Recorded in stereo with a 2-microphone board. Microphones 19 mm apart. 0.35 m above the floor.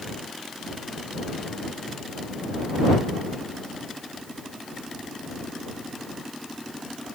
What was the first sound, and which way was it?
Only background noise.